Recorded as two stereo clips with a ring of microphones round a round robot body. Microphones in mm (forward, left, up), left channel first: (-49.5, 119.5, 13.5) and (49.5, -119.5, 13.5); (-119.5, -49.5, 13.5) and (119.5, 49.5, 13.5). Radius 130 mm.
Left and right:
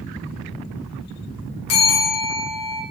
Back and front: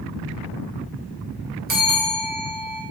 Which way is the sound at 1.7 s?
80° left.